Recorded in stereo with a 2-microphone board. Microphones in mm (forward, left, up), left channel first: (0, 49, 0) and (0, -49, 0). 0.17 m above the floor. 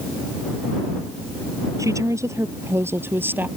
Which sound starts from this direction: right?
A woman speaking, at 1.8 s.